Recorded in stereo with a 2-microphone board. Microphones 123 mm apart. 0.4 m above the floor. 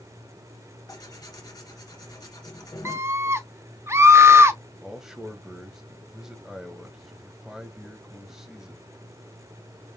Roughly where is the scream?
Right.